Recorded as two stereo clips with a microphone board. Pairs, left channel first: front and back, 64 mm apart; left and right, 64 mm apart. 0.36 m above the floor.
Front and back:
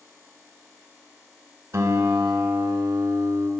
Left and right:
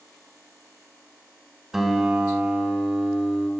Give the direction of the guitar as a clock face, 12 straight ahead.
6 o'clock.